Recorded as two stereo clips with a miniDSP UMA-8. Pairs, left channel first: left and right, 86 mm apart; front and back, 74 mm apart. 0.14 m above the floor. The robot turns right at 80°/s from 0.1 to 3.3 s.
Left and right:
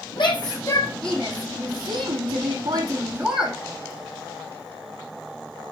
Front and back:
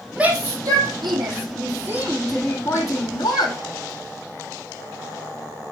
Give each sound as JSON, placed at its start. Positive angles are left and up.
{"t": 0.2, "sound": "a shout", "azimuth_deg": 105, "distance_m": 5.5}